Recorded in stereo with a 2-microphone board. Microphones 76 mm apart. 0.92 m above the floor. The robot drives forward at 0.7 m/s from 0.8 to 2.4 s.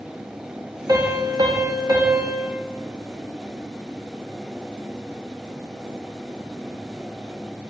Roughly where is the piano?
Right.